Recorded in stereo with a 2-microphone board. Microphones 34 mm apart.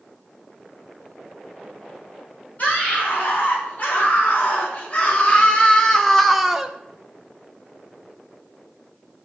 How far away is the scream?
About 5.5 m.